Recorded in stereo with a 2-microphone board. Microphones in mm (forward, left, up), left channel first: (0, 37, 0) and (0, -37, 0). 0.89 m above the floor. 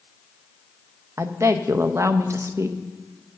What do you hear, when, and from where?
1.2 s a woman speaking: 40° right (ahead or behind), 0.6 m